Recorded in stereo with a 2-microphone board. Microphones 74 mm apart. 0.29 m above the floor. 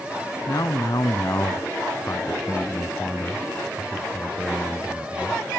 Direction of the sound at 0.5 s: 60° left (ahead or behind).